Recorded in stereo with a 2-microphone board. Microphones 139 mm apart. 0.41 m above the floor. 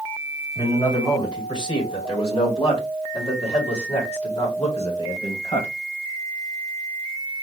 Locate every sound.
0.6 s a man speaking: 30° left (ahead or behind), 2.5 m; by 5.7 s 50° left (ahead or behind), 2.5 m